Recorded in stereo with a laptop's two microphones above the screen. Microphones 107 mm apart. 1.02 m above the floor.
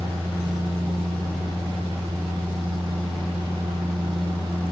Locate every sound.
0.0 s a machine running: 50° right (ahead or behind), 2.5 m